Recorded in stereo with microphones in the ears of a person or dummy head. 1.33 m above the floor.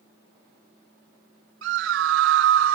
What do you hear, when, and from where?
1.6 s a scream: 65° right (ahead or behind); by 2.8 s 70° right (ahead or behind)